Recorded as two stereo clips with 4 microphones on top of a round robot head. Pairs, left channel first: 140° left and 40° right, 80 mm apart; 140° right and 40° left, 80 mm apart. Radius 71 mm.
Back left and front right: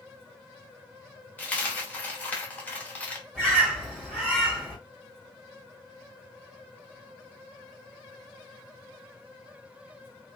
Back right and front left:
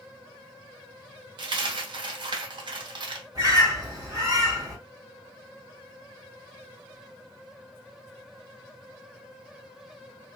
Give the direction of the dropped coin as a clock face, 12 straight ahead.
10 o'clock.